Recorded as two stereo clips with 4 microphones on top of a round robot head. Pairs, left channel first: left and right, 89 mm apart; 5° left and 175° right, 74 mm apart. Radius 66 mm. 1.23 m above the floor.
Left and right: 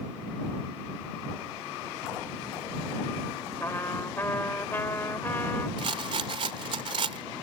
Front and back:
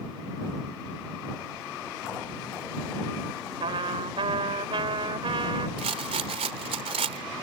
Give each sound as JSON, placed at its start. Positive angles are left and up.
{"t": 3.6, "sound": "a trumpet", "azimuth_deg": 165}
{"t": 5.8, "sound": "a rattle", "azimuth_deg": -145}